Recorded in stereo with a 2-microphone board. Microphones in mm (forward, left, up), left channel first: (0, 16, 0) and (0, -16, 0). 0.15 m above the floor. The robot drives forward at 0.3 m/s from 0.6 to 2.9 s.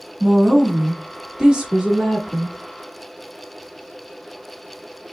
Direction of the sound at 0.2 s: 25° right (ahead or behind).